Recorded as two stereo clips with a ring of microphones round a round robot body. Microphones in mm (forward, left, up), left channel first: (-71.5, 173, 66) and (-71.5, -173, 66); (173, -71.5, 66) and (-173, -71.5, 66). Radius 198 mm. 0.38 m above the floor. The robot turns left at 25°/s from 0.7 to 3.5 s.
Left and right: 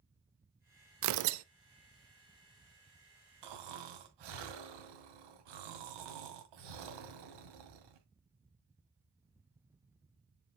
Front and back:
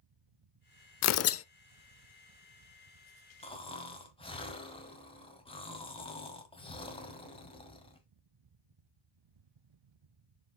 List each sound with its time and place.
1.0 s tearing paper: 45° right, 0.6 m; by 1.4 s 55° right, 0.6 m
3.4 s snoring: 75° right, 2 m